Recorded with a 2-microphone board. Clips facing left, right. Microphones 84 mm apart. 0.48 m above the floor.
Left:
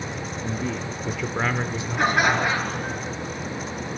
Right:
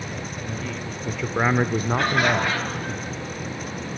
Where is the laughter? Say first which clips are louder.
Left 3 dB; 15° left (ahead or behind), 6 m.